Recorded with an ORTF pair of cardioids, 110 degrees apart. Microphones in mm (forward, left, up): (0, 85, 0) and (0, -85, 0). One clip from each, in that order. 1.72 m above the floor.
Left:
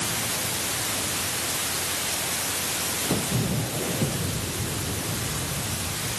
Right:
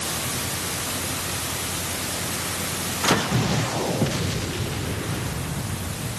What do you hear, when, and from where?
Only background noise.